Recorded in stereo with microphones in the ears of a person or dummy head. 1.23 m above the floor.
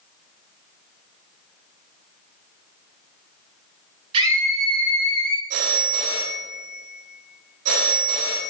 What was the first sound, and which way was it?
A scream, 30° right (ahead or behind).